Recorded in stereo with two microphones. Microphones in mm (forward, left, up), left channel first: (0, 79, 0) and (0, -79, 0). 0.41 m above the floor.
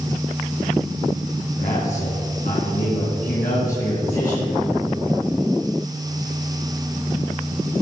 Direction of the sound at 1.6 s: 65° left (ahead or behind).